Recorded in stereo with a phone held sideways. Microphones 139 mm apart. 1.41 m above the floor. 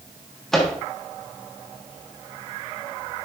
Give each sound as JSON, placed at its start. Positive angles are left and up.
{"t": 0.5, "sound": "a microwave", "side_deg": 5, "distance_m": 1.3}